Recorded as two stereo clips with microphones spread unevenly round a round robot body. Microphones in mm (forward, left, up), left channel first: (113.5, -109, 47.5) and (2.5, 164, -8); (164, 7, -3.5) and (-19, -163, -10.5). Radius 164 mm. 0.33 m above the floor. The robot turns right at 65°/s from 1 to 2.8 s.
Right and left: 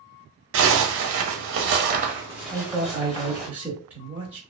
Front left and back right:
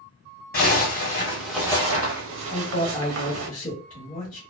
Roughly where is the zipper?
Left.